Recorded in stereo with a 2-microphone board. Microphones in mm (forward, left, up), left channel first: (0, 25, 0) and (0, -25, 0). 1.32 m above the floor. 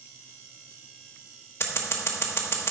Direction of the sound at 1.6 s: 55° left (ahead or behind).